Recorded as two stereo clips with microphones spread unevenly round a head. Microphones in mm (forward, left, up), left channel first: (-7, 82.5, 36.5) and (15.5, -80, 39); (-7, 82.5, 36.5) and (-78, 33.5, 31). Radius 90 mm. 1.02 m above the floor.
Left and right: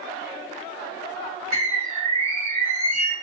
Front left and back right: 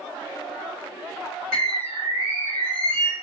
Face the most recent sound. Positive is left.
turn(degrees=-135)